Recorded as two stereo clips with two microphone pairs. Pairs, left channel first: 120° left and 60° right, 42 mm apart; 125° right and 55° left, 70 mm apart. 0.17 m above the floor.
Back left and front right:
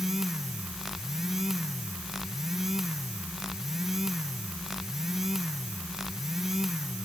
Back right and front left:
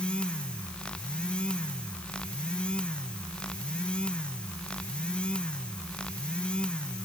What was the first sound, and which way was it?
Only background noise.